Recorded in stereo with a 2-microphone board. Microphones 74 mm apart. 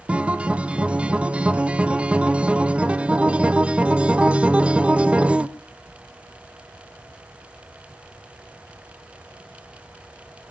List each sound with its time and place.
0.1 s a guitar: 15° right (ahead or behind), 0.7 m